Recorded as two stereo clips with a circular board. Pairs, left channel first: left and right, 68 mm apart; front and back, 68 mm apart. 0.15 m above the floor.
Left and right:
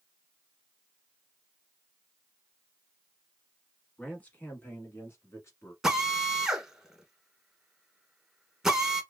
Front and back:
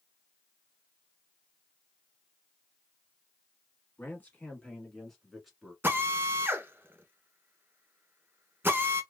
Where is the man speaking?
35° left, 1.3 m; by 5.7 s 95° left, 1.5 m.